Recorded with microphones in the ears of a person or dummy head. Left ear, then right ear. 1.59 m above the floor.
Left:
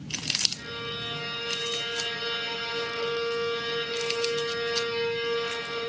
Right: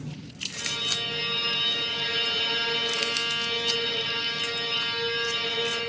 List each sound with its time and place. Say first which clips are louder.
0.5 s a violin: right 6 dB; 65° right (ahead or behind), 8.5 m